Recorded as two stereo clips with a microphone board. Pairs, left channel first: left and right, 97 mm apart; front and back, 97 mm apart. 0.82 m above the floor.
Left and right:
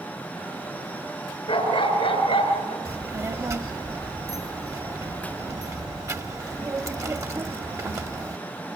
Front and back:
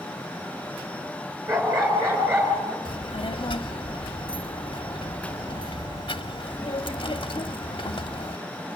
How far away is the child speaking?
About 1.1 m.